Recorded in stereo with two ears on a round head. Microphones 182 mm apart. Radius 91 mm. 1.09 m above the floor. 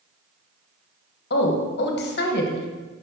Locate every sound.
1.3 s a woman speaking: 55° left (ahead or behind), 1.2 m